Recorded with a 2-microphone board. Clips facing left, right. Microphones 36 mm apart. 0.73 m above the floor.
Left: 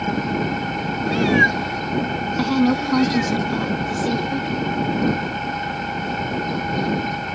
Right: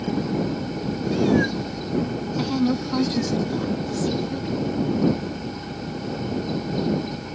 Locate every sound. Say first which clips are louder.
0.0 s an engine running: left 2 dB; 60° left (ahead or behind)
1.1 s a cat meowing: left 4 dB; 55° left (ahead or behind)
2.4 s a woman speaking: left 4 dB; 25° left (ahead or behind)